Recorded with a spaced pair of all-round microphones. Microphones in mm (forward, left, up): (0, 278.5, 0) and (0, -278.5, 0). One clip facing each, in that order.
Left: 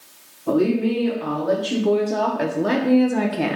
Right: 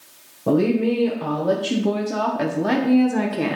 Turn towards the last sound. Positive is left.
turn(degrees=10)  # may be behind; listen again after turning